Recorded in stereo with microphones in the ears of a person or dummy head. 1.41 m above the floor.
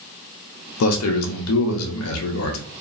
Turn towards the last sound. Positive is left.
turn(degrees=80)